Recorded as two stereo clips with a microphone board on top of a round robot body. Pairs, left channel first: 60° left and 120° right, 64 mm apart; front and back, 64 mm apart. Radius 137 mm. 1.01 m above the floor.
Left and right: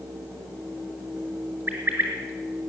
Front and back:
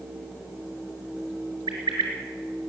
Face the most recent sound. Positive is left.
turn(degrees=-175)